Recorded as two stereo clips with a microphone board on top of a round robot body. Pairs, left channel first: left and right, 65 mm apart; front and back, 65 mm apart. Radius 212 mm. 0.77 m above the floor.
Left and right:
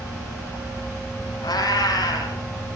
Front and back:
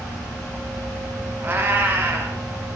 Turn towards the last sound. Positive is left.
turn(degrees=115)